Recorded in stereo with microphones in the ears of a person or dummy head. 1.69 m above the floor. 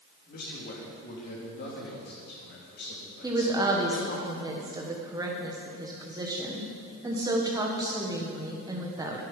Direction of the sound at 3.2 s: 15° right (ahead or behind).